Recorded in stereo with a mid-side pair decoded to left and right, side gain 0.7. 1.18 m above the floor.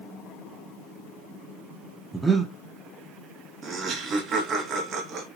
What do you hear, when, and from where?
2.1 s breathing: 10° right, 0.9 m
3.6 s laughter: 40° right, 1.7 m